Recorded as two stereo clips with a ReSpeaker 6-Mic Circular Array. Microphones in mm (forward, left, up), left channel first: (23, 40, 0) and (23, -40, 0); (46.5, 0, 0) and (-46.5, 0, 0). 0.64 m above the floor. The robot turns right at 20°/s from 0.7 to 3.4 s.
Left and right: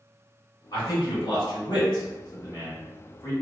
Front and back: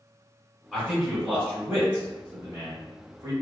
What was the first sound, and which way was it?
A man speaking, 85° left.